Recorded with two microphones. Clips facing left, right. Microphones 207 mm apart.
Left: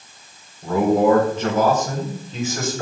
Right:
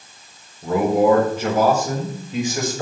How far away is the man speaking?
About 5.5 m.